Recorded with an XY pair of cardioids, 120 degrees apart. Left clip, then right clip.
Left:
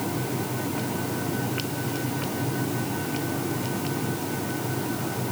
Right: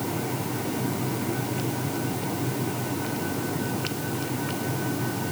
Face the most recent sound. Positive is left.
No sound to turn to.